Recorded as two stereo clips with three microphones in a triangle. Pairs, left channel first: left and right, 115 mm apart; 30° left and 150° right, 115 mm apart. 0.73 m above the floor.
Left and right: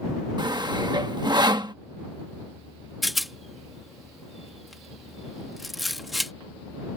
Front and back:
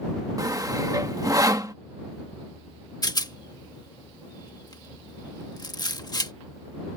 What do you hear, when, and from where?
0.4 s sawing: 110° right
3.0 s a rattle: straight ahead